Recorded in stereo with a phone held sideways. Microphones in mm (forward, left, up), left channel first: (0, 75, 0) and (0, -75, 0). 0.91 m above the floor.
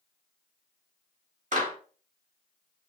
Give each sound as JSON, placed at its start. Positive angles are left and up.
{"t": 1.5, "sound": "a clap", "side_deg": -60, "distance_m": 1.1}